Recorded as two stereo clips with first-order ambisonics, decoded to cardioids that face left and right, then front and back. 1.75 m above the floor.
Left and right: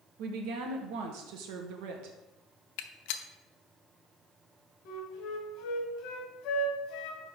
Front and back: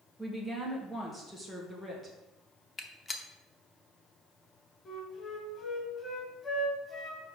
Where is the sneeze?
I don't hear a sneeze.